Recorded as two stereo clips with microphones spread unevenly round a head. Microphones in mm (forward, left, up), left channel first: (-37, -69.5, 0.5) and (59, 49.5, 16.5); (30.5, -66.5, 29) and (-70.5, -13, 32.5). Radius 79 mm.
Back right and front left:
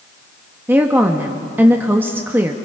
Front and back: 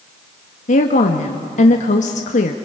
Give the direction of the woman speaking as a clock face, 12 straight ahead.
1 o'clock.